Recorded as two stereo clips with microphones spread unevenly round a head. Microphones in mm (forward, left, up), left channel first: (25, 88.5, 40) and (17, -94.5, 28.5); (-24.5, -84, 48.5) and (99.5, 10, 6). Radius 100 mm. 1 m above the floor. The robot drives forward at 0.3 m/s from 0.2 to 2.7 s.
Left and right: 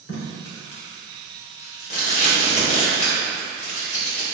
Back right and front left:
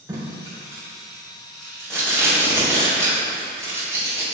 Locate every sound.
0.1 s tape being pulled: 120° left, 1.5 m; by 4.2 s 140° left, 1.9 m